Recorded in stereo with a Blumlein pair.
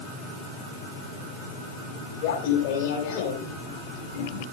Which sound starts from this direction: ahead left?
Laughter, at 2.2 s.